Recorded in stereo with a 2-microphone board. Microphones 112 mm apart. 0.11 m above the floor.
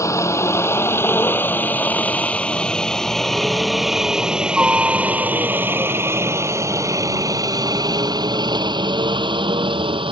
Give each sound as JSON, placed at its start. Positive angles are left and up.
{"t": 0.0, "sound": "a helicopter", "side_deg": 25}